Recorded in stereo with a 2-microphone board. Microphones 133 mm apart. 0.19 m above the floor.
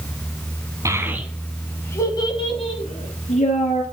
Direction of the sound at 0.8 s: 25° right (ahead or behind).